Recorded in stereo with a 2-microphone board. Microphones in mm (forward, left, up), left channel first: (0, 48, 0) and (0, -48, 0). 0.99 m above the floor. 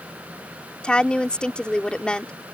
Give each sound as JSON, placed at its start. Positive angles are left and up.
{"t": 0.8, "sound": "a woman speaking", "side_deg": 10}